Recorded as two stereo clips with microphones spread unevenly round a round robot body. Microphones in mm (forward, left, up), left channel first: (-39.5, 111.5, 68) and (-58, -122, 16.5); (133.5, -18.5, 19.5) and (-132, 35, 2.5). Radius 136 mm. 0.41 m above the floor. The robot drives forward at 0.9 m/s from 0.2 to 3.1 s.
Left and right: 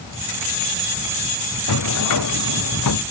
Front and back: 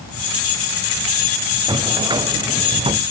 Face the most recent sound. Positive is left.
turn(degrees=95)